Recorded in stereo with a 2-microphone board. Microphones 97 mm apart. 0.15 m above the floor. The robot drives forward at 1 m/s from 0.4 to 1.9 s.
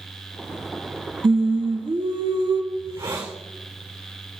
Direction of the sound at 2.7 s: 35° right (ahead or behind).